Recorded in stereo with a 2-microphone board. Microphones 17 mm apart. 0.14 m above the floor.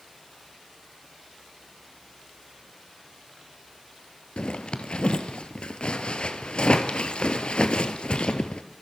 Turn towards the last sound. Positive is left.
turn(degrees=65)  # may be behind; listen again after turning